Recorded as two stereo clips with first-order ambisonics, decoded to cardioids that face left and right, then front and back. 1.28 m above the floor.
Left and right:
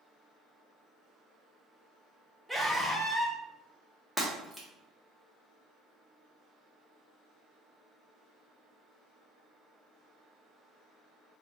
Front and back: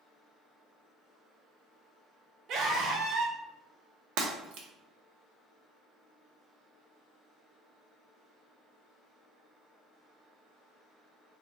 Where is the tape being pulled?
I don't hear tape being pulled.